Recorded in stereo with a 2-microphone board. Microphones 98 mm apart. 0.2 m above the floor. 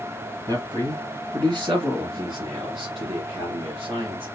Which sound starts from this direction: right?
A man speaking, at 0.5 s.